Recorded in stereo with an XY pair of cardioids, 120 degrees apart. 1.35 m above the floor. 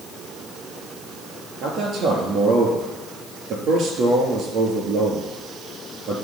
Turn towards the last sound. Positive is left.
turn(degrees=-65)